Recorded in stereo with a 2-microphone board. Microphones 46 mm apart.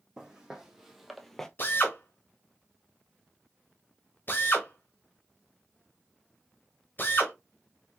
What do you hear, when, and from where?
0.2 s footsteps: 15° right (ahead or behind), 1.1 m; by 1.5 s 10° left (ahead or behind), 0.5 m
1.6 s a drill: 45° left (ahead or behind), 1.2 m